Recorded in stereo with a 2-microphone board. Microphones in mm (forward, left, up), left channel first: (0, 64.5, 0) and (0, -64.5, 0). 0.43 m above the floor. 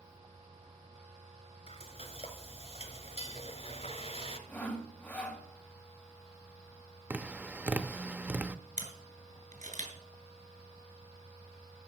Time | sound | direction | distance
1.7 | frying | 55° left (ahead or behind) | 1.6 m
4.5 | sawing | 15° left (ahead or behind) | 2.0 m
7.1 | tapping | 10° right (ahead or behind) | 0.5 m
8.8 | a camera shutter | 75° right (ahead or behind) | 3 m